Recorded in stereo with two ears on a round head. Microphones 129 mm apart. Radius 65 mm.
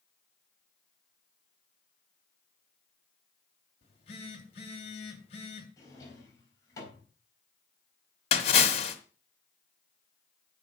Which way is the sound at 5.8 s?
25° left (ahead or behind).